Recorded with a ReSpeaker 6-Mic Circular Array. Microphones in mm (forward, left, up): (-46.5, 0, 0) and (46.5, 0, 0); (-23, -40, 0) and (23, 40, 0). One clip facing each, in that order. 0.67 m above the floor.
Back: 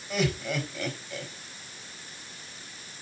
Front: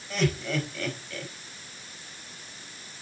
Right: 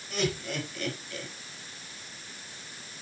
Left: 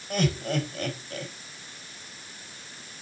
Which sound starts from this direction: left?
Laughter, at 0.1 s.